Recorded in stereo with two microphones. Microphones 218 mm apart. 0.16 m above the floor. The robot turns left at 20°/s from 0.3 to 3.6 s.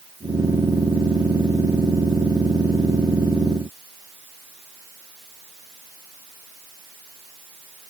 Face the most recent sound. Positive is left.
No sound to turn to.